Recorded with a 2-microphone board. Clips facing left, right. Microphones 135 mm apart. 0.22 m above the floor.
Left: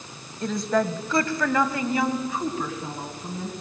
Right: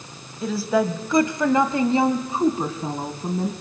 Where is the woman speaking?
5° right (ahead or behind), 1.2 m; by 3.5 s 35° right (ahead or behind), 2 m.